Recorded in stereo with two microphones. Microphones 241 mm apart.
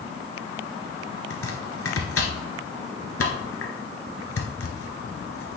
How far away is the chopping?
About 1.5 m.